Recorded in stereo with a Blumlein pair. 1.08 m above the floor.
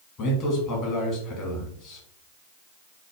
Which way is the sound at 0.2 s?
35° left.